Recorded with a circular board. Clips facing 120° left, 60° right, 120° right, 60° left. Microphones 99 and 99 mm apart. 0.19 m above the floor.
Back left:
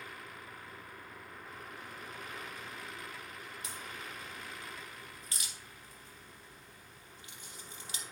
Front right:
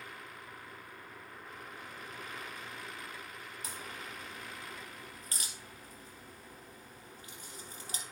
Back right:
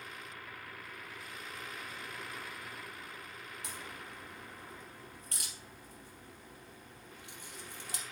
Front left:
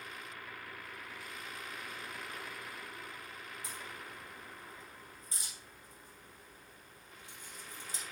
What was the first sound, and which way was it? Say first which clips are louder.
A crack: front right 1 dB, back right 1 dB; 110° right.